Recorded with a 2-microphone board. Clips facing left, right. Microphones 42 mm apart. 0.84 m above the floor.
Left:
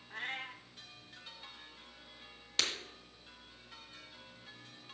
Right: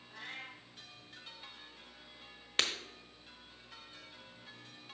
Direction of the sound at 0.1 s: 45° left (ahead or behind).